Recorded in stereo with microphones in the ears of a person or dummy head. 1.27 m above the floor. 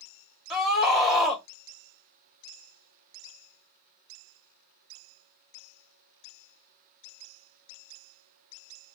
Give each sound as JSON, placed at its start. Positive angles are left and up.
{"t": 0.5, "sound": "a scream", "side_deg": 5, "distance_m": 1.0}